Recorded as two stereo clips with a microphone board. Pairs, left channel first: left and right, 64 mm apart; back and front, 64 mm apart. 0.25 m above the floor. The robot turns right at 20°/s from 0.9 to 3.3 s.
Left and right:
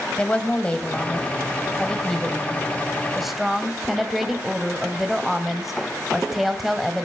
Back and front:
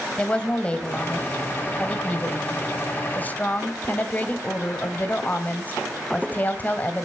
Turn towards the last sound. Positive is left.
turn(degrees=-175)